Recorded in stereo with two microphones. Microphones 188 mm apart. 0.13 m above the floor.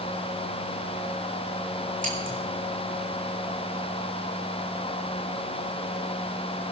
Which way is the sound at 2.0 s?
45° right (ahead or behind).